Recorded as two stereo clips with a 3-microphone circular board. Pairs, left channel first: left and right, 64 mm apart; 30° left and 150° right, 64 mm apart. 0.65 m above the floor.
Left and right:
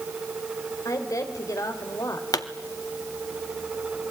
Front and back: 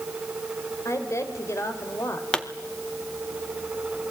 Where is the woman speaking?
65° left, 3 m.